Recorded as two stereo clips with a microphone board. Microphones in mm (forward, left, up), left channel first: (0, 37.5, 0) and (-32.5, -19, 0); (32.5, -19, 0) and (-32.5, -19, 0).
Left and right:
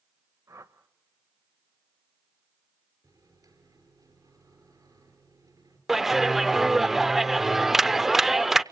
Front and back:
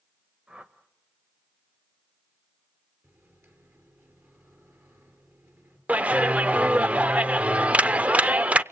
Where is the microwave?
130° right, 5 m.